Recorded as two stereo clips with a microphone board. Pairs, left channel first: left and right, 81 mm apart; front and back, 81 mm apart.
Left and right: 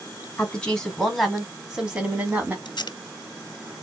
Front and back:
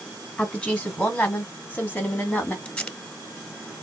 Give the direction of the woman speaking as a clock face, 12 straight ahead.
11 o'clock.